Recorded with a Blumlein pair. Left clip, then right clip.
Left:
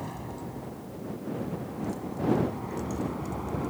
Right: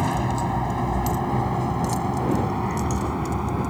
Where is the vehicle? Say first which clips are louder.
Right 14 dB; 55° right; by 3.7 s 25° right.